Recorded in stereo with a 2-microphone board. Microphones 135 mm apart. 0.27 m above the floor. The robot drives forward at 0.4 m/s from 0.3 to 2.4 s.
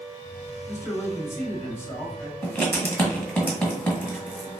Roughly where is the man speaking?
Left.